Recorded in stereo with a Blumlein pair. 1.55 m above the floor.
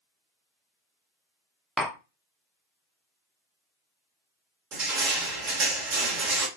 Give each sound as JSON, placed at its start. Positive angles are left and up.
{"t": 1.8, "sound": "tapping", "azimuth_deg": -5, "distance_m": 0.5}
{"t": 4.7, "sound": "crushing", "azimuth_deg": -35, "distance_m": 0.8}